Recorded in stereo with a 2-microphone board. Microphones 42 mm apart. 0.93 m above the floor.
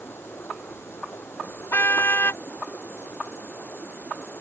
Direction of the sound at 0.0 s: 75° left (ahead or behind).